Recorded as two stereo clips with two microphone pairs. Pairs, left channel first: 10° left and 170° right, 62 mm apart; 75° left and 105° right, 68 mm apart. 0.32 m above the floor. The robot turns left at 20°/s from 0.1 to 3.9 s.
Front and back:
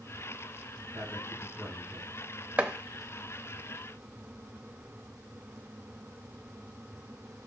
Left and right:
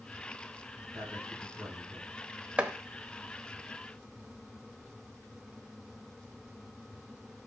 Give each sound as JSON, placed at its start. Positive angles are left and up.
{"t": 0.9, "sound": "a man speaking", "azimuth_deg": -115, "distance_m": 2.5}
{"t": 2.6, "sound": "chopping", "azimuth_deg": -140, "distance_m": 0.6}